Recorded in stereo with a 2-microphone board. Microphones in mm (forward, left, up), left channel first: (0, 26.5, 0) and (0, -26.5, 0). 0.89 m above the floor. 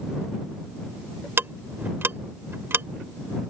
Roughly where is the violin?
No violin in this recording.